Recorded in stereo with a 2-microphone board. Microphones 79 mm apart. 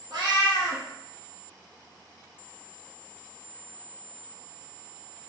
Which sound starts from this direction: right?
A cat meowing, at 0.1 s.